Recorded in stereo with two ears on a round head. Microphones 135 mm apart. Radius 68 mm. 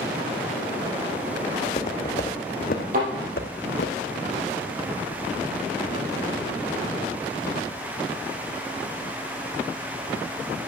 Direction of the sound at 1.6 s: 35° left (ahead or behind).